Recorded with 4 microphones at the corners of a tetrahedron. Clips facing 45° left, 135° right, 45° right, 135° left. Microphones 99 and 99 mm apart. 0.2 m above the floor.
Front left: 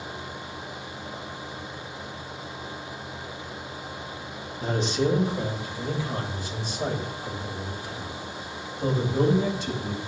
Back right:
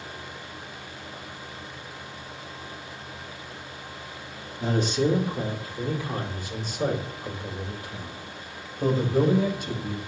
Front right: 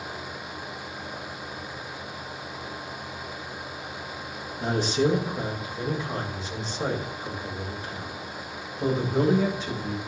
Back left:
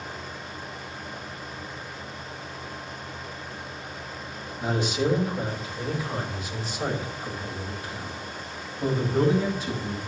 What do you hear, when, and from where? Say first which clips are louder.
4.6 s a man speaking: back right 1 dB, front right 2 dB; 90° right, 4.5 m; by 10.0 s 105° right, 8.5 m